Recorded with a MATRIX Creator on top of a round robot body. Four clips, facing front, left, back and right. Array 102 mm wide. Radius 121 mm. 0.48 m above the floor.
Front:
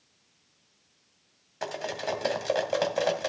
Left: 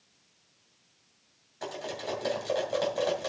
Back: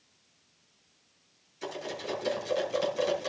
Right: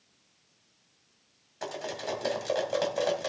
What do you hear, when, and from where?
1.6 s cutlery clinking: 10° right, 2.5 m